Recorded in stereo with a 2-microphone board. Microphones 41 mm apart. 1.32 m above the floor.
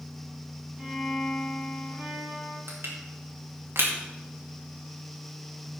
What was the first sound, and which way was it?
A violin, 15° right (ahead or behind).